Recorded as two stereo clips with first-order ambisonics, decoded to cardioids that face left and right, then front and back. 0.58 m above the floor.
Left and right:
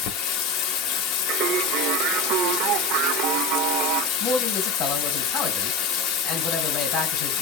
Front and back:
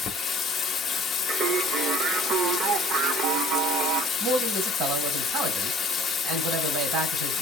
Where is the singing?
125° right, 0.6 m.